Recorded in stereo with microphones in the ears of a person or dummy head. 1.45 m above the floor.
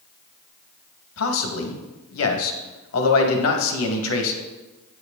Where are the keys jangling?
No keys jangling in this recording.